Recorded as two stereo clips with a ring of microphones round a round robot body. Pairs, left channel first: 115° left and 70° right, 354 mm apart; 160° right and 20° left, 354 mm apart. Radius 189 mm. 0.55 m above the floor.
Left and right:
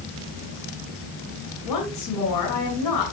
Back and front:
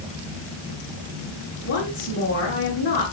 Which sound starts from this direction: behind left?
A woman speaking, at 1.6 s.